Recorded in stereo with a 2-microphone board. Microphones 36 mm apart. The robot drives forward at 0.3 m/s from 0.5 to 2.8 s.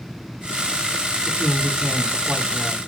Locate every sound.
1.2 s a woman speaking: 10° left (ahead or behind), 1.0 m; by 2.8 s 15° left (ahead or behind), 0.8 m